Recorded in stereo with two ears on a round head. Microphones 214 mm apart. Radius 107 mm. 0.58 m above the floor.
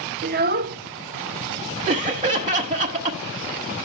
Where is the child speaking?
40° right (ahead or behind), 0.6 m.